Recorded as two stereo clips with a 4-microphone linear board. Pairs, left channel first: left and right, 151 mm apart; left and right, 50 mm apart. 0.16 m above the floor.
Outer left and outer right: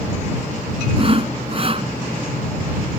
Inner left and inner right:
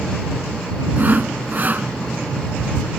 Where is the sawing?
40° right (ahead or behind).